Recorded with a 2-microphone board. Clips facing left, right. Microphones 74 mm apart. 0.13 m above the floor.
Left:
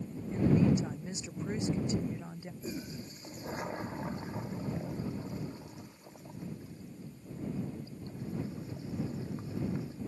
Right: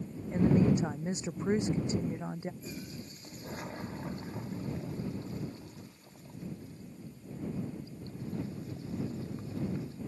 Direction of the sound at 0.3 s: 35° right (ahead or behind).